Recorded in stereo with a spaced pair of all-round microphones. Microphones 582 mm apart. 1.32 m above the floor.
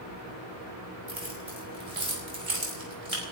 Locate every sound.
1.1 s keys jangling: 75° right (ahead or behind), 5.5 m